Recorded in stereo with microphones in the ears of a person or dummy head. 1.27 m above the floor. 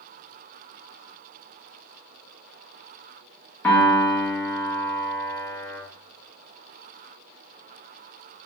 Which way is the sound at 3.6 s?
10° left (ahead or behind).